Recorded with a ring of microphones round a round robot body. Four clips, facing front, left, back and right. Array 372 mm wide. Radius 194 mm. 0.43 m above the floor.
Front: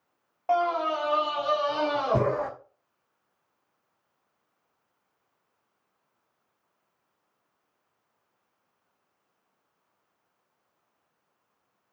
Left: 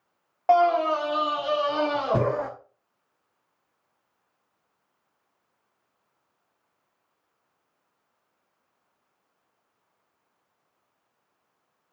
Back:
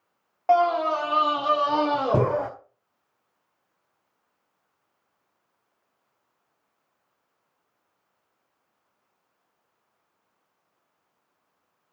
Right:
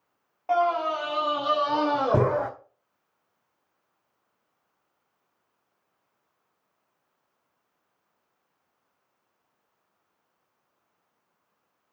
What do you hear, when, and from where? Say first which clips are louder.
0.5 s a scream: left 4 dB, back 5 dB; 115° left, 1.7 m; by 2.5 s 130° right, 2.5 m